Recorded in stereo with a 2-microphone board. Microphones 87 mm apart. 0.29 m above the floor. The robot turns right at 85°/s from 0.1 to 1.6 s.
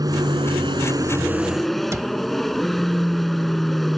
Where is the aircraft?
125° right; by 4.0 s 5° left.